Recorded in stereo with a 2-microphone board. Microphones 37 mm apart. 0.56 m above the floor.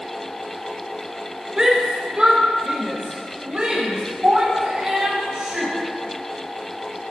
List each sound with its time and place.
1.6 s a shout: 20° right (ahead or behind), 1.7 m; by 5.7 s 45° right (ahead or behind), 4 m